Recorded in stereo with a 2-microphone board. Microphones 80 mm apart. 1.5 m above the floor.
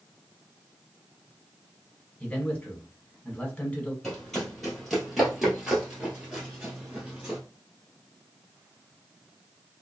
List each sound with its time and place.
2.2 s a man speaking: 15° left (ahead or behind), 1.2 m
4.0 s running footsteps: 10° left (ahead or behind), 1.8 m; by 7.4 s 15° right (ahead or behind), 1.7 m